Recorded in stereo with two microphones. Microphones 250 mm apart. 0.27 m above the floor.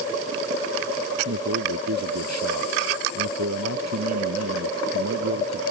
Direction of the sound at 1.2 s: 80° right.